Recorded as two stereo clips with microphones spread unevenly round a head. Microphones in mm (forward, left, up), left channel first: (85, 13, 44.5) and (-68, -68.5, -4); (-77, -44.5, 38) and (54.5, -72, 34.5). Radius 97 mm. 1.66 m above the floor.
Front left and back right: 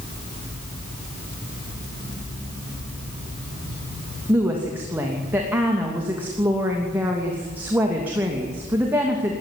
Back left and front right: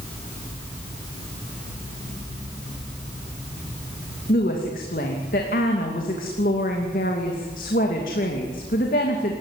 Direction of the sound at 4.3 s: 130° left.